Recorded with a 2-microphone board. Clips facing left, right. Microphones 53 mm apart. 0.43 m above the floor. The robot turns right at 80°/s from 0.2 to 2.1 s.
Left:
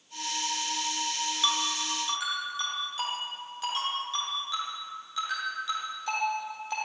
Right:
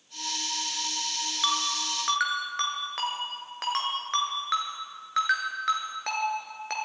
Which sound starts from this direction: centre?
A ringtone, at 1.4 s.